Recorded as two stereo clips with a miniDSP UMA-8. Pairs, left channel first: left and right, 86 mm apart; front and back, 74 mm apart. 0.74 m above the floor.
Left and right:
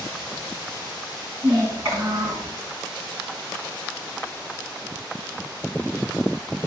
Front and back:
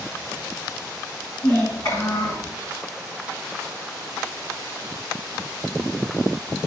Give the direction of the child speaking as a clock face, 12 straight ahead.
1 o'clock.